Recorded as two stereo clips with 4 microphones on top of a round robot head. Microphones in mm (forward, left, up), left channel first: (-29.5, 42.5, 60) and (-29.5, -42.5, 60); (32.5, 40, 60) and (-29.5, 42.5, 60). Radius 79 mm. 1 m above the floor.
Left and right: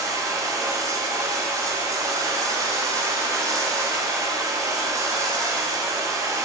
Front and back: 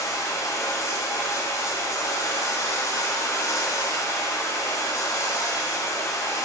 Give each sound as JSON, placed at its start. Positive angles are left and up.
{"t": 0.0, "sound": "running water", "azimuth_deg": -40, "distance_m": 1.0}